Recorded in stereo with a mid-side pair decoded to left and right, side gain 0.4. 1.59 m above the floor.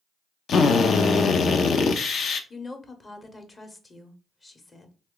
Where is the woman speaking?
35° left, 0.9 m.